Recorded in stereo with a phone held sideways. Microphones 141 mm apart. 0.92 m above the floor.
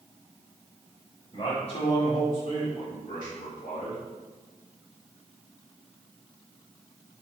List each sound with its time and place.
1.3 s a man speaking: 45° left (ahead or behind), 2 m; by 4.0 s 70° left (ahead or behind), 2.5 m